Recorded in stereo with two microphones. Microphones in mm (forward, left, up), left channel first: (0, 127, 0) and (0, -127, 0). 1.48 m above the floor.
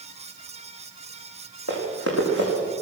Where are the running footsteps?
70° left (ahead or behind), 5.5 m.